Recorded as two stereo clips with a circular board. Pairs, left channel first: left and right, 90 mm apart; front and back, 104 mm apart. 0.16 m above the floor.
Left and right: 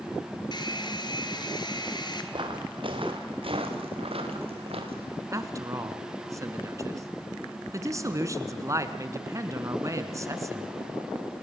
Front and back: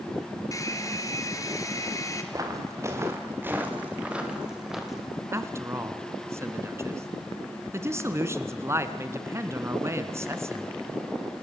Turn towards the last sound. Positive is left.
turn(degrees=-125)